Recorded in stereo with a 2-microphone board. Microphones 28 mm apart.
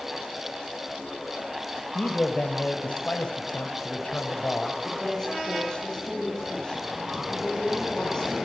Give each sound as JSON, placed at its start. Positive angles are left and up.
{"t": 1.9, "sound": "a man speaking", "side_deg": 50, "distance_m": 2.0}
{"t": 4.8, "sound": "a woman speaking", "side_deg": 20, "distance_m": 10.0}